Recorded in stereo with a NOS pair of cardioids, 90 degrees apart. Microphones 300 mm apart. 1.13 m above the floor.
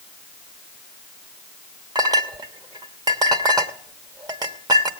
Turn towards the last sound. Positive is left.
turn(degrees=-15)